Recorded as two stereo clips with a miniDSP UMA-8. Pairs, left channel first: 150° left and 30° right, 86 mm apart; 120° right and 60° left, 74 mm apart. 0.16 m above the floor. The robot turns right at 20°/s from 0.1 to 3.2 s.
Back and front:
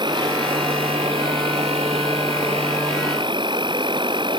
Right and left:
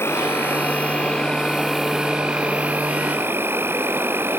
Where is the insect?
60° right; by 4.4 s straight ahead.